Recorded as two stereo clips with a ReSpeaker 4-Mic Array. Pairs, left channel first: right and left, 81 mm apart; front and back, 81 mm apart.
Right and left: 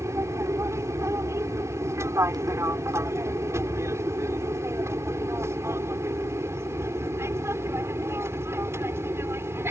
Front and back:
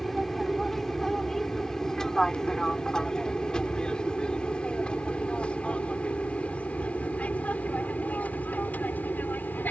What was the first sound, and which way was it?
An aircraft, 85° left.